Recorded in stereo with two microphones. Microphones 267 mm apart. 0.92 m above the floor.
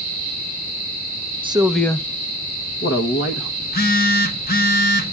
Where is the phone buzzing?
35° left (ahead or behind), 1.4 m.